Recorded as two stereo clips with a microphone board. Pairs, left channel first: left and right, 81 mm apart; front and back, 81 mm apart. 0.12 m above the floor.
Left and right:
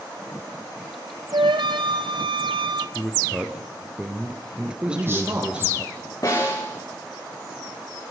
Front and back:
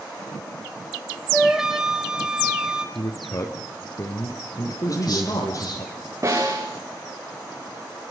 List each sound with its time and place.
1.3 s a flute: 95° right, 1.2 m
3.0 s a man speaking: 15° right, 2.0 m
4.9 s a man speaking: 30° right, 6 m
6.2 s a snare drum: 130° left, 7.5 m